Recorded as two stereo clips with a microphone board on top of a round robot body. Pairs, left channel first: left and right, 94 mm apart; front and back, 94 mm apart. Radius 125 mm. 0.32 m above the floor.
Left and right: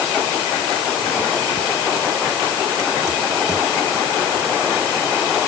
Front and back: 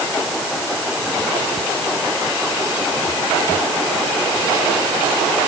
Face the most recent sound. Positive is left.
No sound to turn to.